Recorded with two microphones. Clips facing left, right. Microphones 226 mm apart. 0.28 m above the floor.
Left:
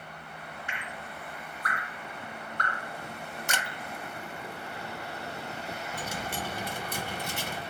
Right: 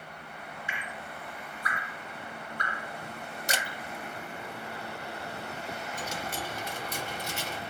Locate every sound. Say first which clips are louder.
0.7 s dripping: even; 70° left (ahead or behind), 2 m
3.5 s a camera shutter: right 2 dB; 35° right (ahead or behind), 0.7 m
5.9 s a dropped coin: left 2 dB; 55° left (ahead or behind), 1.0 m